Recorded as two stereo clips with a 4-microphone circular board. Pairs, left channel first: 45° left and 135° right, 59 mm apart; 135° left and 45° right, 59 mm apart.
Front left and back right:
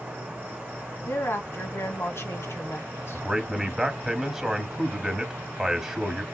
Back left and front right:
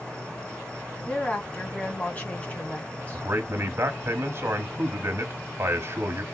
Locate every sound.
0.0 s an insect: 175° right, 1.8 m
1.1 s a woman speaking: 75° left, 1.9 m
3.1 s a man speaking: 55° right, 1.4 m